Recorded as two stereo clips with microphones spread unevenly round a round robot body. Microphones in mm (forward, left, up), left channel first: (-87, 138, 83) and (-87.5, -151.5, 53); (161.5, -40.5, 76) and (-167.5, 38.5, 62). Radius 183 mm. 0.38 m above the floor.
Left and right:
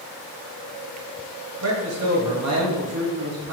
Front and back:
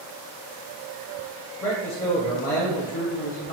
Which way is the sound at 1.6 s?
80° right.